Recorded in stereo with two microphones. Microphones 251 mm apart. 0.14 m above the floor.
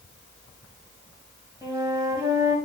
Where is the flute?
10° right (ahead or behind), 2.5 m.